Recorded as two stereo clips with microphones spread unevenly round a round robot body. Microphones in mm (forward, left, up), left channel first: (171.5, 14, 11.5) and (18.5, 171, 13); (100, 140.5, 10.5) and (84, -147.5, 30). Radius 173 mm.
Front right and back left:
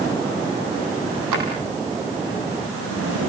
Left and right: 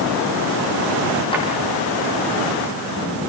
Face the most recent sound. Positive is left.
turn(degrees=165)